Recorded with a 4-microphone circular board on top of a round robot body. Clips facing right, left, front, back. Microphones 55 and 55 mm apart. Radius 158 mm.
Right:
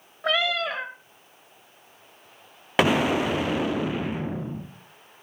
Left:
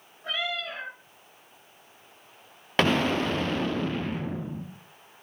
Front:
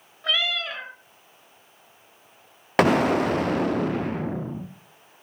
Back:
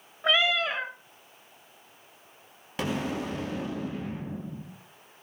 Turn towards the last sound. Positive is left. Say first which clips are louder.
# right 3 dB, front 12 dB
turn(degrees=-10)